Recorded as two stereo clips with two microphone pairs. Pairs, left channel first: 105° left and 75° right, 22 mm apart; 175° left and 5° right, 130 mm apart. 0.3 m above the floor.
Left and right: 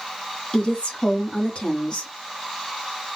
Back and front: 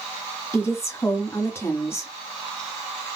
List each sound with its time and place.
0.5 s a woman speaking: 115° left, 1.6 m